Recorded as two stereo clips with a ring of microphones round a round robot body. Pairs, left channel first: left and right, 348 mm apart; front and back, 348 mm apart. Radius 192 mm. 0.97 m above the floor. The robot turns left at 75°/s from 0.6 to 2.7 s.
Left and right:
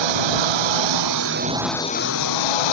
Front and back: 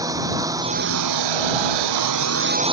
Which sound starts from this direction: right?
A lawn mower, at 0.0 s.